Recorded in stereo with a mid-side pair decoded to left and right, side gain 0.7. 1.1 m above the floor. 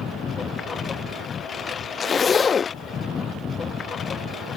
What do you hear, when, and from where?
0.0 s a lawn mower: 30° left
2.0 s a zipper: 30° left